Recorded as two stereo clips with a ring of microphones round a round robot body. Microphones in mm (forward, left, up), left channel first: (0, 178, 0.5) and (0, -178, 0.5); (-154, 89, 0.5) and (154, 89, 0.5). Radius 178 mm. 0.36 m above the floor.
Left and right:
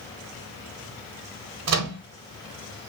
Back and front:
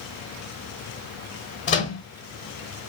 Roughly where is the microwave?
Behind right.